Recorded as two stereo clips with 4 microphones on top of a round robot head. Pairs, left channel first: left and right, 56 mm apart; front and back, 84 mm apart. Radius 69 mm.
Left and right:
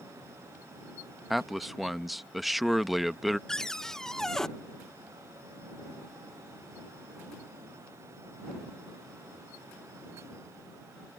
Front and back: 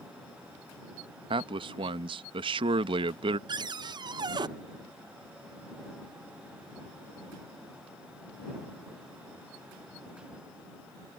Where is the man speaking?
Straight behind.